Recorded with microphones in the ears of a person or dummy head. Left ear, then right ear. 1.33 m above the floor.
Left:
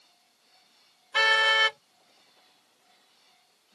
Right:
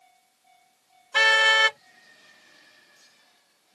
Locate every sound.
1.1 s a car horn: 10° right (ahead or behind)